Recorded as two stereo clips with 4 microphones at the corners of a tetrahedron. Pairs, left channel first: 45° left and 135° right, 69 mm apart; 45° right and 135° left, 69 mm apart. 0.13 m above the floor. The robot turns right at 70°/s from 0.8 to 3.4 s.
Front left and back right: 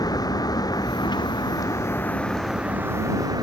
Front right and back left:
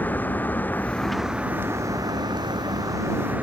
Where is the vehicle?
20° left; by 3.4 s 160° right.